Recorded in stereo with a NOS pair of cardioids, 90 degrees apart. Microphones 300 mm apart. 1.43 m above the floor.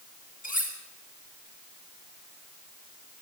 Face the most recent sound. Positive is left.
turn(degrees=30)